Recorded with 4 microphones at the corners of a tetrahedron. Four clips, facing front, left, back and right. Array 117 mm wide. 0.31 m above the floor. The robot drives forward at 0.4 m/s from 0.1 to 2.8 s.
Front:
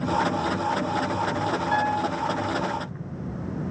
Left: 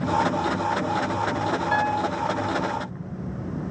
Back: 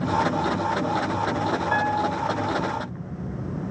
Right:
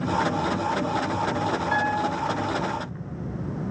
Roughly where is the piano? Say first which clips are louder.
Left 1 dB, even; behind.